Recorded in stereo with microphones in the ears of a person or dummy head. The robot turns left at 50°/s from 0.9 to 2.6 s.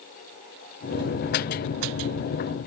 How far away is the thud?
I don't hear a thud.